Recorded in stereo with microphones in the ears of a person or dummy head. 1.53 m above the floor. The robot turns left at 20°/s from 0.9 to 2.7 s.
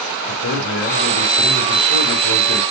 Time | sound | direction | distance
0.3 | a man speaking | 110° left | 2.5 m